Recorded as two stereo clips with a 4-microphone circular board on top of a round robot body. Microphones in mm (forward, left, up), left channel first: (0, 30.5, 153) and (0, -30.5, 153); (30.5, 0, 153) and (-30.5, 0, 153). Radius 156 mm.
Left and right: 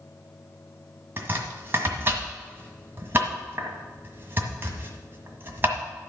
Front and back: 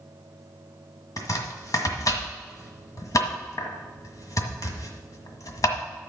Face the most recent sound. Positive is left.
turn(degrees=-35)